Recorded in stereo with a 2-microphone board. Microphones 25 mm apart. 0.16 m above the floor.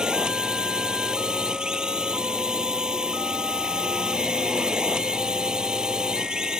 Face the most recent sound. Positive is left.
turn(degrees=-40)  # may be behind; listen again after turning